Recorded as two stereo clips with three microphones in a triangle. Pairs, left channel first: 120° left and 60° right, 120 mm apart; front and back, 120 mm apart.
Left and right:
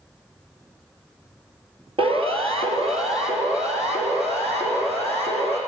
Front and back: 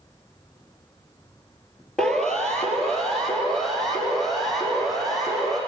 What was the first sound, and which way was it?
A siren, 85° right.